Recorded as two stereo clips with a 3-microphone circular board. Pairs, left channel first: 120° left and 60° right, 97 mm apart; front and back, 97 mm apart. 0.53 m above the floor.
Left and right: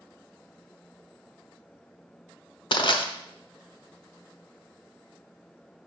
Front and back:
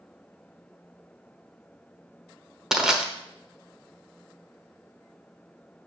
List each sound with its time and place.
2.7 s crushing: 95° left, 0.9 m